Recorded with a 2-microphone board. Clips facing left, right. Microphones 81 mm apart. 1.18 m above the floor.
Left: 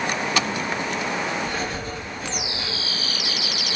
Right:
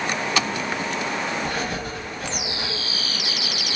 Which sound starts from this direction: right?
Writing, at 1.4 s.